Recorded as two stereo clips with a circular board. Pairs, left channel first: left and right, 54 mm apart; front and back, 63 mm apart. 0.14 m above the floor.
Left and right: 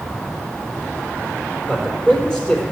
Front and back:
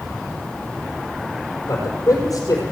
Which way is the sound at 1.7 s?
20° left.